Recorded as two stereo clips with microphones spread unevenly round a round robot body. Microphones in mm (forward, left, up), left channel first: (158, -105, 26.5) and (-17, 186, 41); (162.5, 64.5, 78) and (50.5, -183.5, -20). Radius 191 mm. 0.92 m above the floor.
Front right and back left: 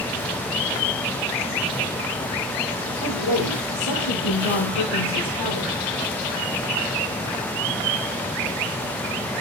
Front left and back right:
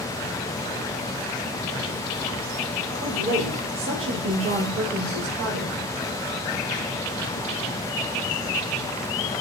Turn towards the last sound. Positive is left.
turn(degrees=-95)